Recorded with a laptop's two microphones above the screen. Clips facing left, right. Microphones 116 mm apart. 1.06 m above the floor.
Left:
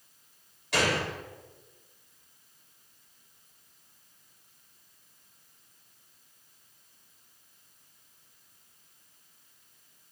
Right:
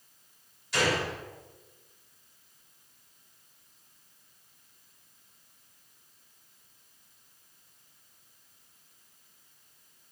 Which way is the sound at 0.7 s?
80° left.